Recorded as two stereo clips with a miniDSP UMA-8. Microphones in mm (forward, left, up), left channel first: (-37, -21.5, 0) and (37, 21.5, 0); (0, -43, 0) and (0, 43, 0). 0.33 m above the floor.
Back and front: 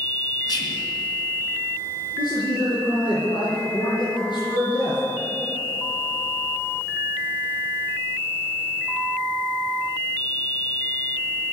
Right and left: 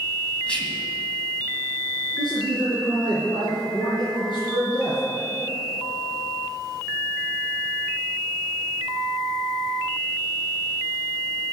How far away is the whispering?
About 2.5 m.